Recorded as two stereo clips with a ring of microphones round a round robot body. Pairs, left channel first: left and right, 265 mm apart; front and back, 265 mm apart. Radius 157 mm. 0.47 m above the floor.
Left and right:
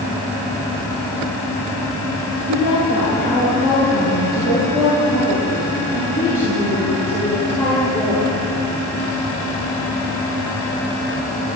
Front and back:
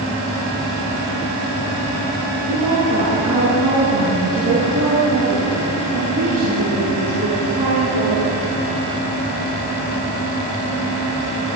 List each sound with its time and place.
2.5 s a woman speaking: 145° right, 8 m; by 8.3 s straight behind, 14.5 m